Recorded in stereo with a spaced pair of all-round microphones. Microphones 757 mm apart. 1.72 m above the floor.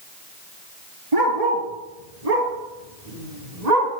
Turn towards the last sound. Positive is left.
turn(degrees=-60)  # may be behind; listen again after turning